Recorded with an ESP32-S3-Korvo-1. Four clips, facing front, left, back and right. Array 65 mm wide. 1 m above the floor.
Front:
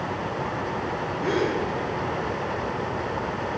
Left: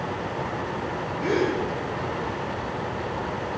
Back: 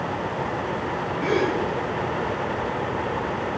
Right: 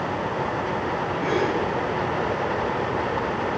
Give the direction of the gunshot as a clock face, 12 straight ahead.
No gunshot in this recording.